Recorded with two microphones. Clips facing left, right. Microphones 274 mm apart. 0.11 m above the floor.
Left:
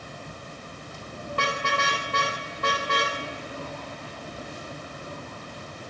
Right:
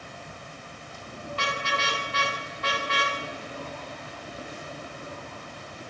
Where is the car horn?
60° left (ahead or behind), 8 m; by 3.1 s 50° left (ahead or behind), 9 m.